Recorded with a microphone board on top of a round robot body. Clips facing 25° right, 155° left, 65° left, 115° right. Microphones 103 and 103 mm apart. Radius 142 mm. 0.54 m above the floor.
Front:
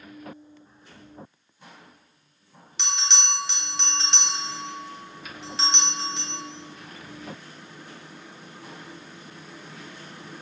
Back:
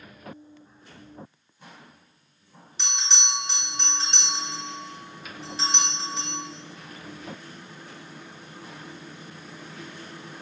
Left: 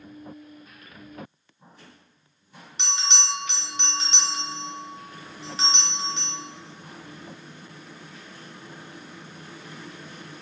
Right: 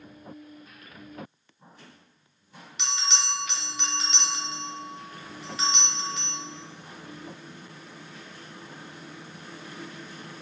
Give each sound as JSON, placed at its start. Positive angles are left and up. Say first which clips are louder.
{"t": 2.8, "sound": "a bell", "louder": "front 3 dB, left 1 dB", "azimuth_deg": 5, "distance_m": 0.8}